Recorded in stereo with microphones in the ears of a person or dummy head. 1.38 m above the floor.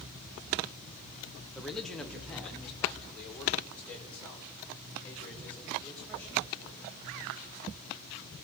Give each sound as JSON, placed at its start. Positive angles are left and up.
{"t": 1.6, "sound": "a man speaking", "side_deg": 0, "distance_m": 1.3}